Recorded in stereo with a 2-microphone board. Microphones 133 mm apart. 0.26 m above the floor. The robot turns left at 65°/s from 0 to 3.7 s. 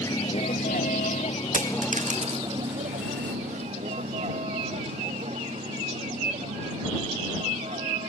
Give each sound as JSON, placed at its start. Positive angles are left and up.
{"t": 0.0, "sound": "a vehicle", "side_deg": 20}
{"t": 1.5, "sound": "a dropped coin", "side_deg": -80}